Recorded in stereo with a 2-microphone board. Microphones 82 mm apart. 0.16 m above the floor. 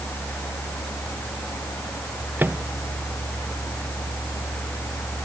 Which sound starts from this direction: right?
A microwave, at 2.4 s.